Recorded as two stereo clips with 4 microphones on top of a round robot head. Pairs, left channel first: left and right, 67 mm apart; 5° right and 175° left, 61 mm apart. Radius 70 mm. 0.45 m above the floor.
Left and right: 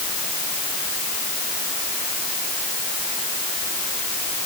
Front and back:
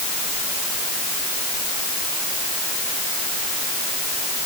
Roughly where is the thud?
I don't hear a thud.